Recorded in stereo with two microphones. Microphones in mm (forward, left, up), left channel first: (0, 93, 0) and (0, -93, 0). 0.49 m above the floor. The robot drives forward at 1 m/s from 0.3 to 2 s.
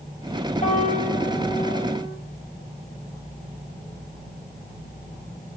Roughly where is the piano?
Left.